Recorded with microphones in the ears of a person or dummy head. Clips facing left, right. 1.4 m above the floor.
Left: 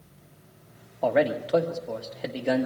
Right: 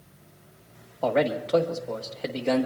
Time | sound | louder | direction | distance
1.0 | a man speaking | left 1 dB | 10° left (ahead or behind) | 1.4 m